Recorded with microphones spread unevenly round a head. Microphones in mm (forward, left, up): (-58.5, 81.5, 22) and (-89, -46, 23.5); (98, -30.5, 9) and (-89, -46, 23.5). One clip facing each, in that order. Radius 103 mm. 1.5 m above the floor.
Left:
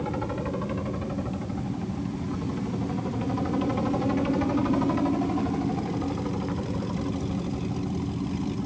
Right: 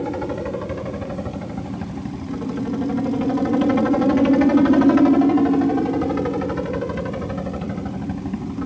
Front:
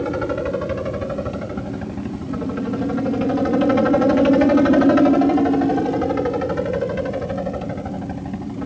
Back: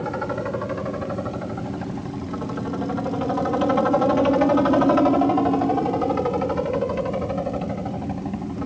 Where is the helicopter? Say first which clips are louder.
Right 5 dB, front 5 dB; 45° right; by 8.7 s 80° right.